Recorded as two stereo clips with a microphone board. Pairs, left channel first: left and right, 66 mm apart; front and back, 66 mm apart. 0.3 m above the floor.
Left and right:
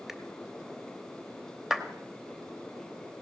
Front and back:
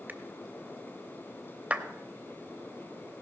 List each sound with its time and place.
0.1 s a finger snap: 165° right, 0.8 m
1.7 s a clap: 165° right, 0.7 m